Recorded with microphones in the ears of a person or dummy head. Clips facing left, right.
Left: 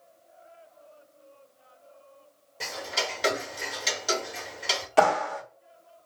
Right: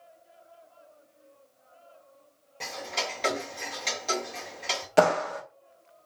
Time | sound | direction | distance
2.6 | ticking | 5° left (ahead or behind) | 0.9 m
5.0 | a clap | 20° right (ahead or behind) | 1.1 m